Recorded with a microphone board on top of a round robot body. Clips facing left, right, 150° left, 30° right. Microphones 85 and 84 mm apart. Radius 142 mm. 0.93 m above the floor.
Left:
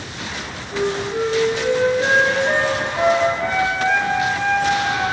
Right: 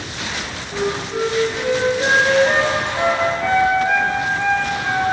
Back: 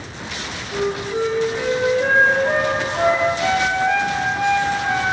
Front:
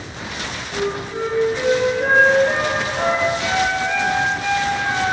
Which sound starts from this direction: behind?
A flute, at 0.7 s.